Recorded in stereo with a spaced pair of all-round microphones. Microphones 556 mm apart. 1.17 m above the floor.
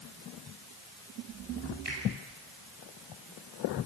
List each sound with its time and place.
1.9 s a finger snap: 85° right, 9.5 m